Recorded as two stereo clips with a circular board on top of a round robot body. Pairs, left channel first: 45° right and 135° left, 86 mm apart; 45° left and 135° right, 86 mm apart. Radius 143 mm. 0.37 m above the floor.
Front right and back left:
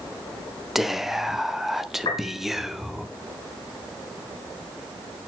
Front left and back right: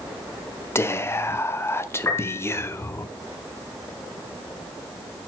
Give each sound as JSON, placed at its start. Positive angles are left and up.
{"t": 0.8, "sound": "whispering", "azimuth_deg": 50, "distance_m": 0.9}
{"t": 2.0, "sound": "a piano", "azimuth_deg": -20, "distance_m": 3.5}